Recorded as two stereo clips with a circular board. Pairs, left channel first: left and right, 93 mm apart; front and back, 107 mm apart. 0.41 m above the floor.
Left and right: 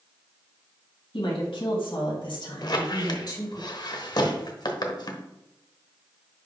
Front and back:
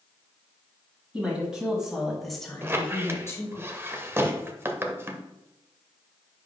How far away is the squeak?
About 0.8 m.